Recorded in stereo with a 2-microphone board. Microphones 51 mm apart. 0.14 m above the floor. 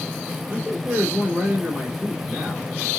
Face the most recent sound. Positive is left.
turn(degrees=-25)  # may be behind; listen again after turning